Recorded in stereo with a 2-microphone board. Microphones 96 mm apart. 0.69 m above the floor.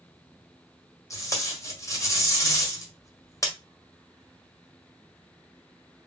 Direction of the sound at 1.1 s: 35° left (ahead or behind).